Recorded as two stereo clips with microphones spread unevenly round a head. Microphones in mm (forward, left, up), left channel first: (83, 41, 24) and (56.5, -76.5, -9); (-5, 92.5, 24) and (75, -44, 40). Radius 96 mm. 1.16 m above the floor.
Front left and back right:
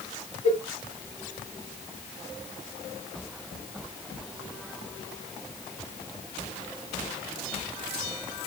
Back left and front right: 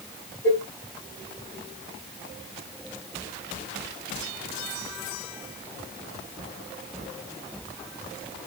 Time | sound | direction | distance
0.4 | a cowbell | 65° left | 3.5 m